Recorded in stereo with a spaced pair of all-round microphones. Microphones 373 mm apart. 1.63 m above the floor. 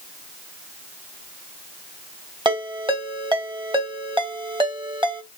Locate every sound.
2.5 s a ringtone: 15° right (ahead or behind), 1.0 m